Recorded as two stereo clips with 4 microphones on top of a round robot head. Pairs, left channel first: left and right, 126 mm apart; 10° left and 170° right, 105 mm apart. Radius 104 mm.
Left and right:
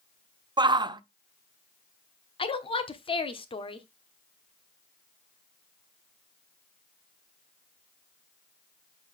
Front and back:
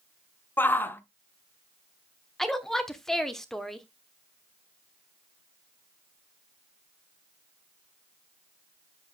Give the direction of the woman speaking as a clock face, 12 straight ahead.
9 o'clock.